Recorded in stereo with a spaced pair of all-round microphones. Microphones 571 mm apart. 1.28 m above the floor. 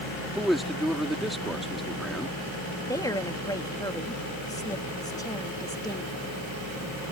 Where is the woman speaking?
5° left (ahead or behind).